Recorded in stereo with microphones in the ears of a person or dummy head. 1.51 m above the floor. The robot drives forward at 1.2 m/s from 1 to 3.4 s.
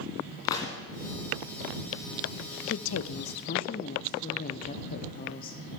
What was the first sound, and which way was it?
A gunshot, 25° left (ahead or behind).